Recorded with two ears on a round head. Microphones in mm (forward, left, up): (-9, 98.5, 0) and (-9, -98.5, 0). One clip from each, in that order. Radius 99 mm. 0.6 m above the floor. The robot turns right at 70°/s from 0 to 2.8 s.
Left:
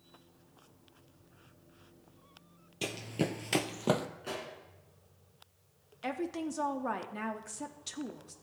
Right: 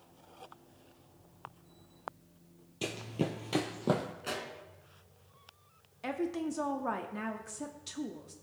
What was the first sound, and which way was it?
Running footsteps, 15° left (ahead or behind).